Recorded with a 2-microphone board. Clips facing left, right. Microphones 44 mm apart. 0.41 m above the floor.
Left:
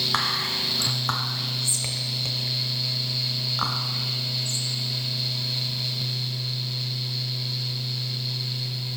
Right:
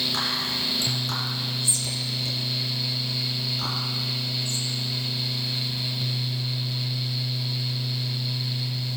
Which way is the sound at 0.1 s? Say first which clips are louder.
Left 2 dB; 55° left (ahead or behind).